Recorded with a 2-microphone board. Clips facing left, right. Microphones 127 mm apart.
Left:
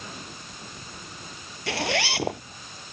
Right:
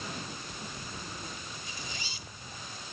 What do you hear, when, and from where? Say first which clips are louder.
1.7 s a zipper: left 17 dB; 80° left